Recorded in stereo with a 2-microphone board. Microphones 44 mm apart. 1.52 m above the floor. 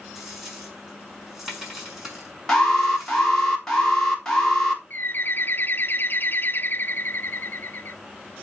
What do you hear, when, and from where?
0.1 s a dropped coin: 10° right (ahead or behind), 6 m
2.5 s an alarm: 10° left (ahead or behind), 3.5 m
4.9 s a bird: 45° left (ahead or behind), 0.5 m